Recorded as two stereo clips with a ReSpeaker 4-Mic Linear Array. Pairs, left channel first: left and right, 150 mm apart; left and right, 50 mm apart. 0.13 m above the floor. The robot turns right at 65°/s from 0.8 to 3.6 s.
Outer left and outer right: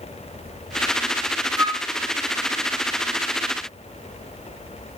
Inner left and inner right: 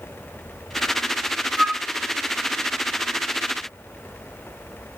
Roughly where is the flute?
Right.